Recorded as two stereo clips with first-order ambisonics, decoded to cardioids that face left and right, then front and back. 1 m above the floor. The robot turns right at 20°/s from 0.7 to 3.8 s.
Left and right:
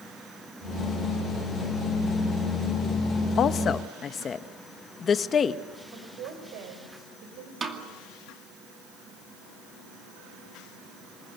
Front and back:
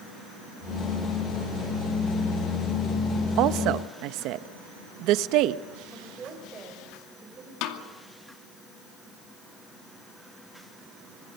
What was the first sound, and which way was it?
A woman speaking, 145° left.